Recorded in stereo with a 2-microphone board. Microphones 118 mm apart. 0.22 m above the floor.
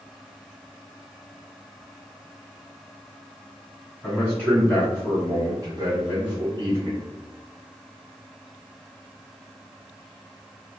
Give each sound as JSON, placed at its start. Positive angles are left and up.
{"t": 4.0, "sound": "a man speaking", "side_deg": -5, "distance_m": 1.5}